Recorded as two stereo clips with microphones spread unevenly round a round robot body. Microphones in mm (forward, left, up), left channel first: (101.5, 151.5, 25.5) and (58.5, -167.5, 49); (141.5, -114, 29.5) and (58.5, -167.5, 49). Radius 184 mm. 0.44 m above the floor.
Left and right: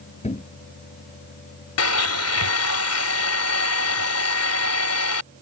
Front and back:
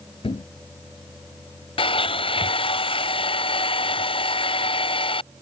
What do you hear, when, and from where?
0.2 s a thud: 15° left
1.8 s a blender: 45° left